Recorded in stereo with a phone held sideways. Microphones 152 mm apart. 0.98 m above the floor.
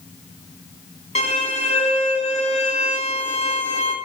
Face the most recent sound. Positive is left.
turn(degrees=45)  # may be behind; listen again after turning